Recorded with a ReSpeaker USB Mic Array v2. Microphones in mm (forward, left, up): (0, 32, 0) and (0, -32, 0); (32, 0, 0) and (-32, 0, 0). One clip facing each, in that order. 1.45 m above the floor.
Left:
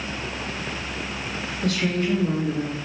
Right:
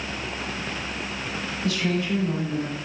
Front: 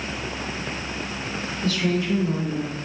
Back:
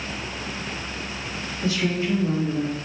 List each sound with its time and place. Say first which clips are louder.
1.6 s a woman speaking: left 2 dB, even; 115° left, 3 m; by 2.8 s 150° left, 2.5 m